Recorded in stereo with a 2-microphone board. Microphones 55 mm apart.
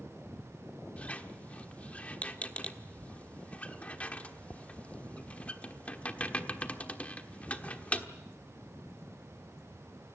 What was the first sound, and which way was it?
A squeak, 25° left (ahead or behind).